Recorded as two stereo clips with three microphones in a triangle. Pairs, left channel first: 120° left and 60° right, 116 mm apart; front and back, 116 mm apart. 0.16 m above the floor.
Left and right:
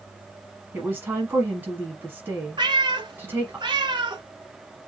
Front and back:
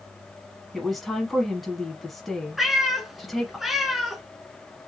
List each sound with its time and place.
0.7 s a woman speaking: 90° right, 1.0 m
2.6 s a cat meowing: 95° right, 0.6 m